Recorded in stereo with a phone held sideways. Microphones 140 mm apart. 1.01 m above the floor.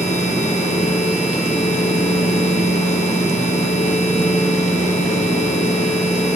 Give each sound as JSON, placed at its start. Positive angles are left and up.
{"t": 0.0, "sound": "a machine running", "side_deg": 55, "distance_m": 1.0}